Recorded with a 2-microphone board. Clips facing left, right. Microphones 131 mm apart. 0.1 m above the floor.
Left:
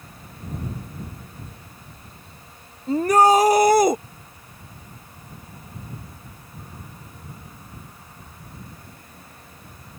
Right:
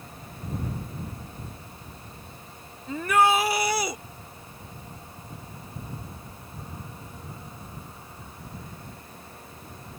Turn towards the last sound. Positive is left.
turn(degrees=50)  # may be behind; listen again after turning